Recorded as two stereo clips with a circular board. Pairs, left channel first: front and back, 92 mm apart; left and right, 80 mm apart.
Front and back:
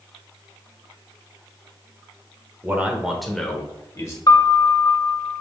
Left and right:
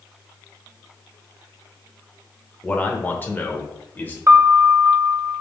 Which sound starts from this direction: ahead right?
A piano, at 4.3 s.